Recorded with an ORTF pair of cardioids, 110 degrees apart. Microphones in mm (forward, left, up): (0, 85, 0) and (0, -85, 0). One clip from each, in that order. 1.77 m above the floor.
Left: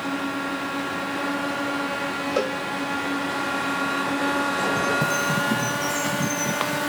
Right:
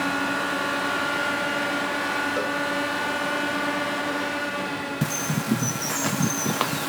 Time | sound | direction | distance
2.4 | a cowbell | 35° left | 0.7 m
5.0 | a bird | 15° right | 0.9 m